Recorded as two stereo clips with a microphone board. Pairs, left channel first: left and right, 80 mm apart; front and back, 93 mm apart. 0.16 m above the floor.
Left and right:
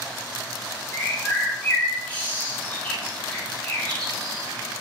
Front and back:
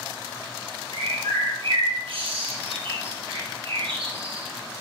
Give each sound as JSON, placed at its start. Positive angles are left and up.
{"t": 0.9, "sound": "a bird", "azimuth_deg": 160, "distance_m": 2.5}